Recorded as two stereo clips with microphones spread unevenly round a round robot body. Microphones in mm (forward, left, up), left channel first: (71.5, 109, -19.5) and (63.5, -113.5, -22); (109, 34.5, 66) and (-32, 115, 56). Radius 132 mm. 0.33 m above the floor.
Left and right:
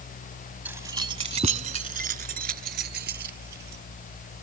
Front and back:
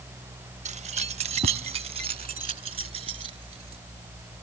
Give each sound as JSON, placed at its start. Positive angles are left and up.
{"t": 0.7, "sound": "keys jangling", "azimuth_deg": -175}